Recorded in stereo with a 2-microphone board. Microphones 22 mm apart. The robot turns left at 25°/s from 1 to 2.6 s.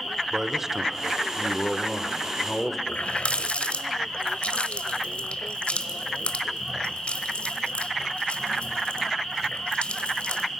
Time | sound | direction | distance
0.3 | a man speaking | 150° right | 1.3 m
2.9 | a running tap | 65° left (ahead or behind) | 1.2 m